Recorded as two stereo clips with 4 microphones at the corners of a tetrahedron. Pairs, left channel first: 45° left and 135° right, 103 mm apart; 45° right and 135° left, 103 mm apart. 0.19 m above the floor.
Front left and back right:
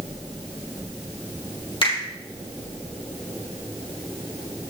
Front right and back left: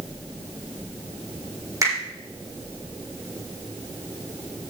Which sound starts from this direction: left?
A finger snap, at 1.8 s.